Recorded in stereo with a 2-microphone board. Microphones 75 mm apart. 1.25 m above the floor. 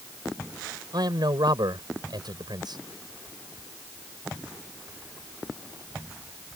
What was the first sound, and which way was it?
A man speaking, 65° right (ahead or behind).